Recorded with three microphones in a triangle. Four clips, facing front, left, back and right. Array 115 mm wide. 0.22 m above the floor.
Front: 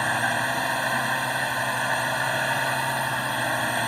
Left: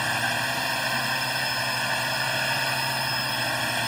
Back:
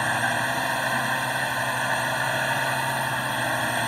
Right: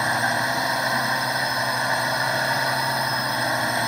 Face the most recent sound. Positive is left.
turn(degrees=-90)